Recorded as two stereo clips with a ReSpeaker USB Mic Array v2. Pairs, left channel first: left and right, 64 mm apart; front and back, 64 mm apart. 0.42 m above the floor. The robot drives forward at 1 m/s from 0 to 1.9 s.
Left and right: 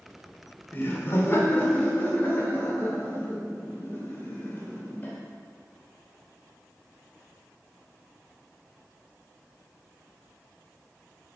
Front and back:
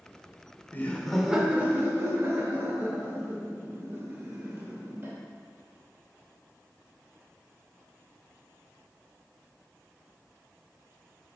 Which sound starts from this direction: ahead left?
Laughter, at 0.7 s.